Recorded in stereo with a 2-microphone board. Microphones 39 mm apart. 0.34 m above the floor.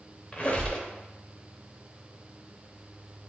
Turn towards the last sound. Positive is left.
turn(degrees=30)  # may be behind; listen again after turning